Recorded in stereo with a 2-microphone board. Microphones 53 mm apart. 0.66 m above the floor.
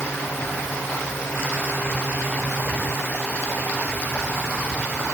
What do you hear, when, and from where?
Only background noise.